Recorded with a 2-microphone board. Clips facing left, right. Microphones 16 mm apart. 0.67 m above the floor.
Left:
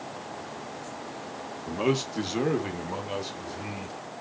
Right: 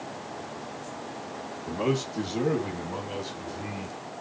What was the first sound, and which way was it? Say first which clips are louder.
A man speaking: left 1 dB; 35° left (ahead or behind).